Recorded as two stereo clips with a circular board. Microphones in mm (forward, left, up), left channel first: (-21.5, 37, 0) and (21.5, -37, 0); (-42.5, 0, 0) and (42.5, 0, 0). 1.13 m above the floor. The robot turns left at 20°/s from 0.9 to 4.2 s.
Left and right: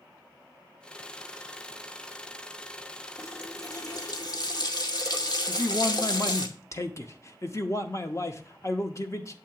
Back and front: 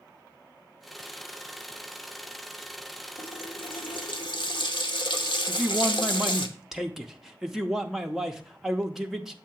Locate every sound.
3.2 s a running tap: straight behind, 0.8 m; by 6.5 s 160° left, 0.8 m
5.5 s a man speaking: 85° left, 0.6 m